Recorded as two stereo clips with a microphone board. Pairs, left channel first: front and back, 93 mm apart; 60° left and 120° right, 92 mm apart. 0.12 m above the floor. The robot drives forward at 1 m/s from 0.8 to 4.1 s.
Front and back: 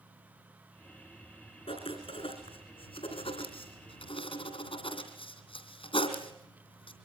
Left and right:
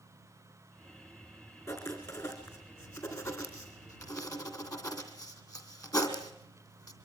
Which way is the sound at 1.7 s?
5° left.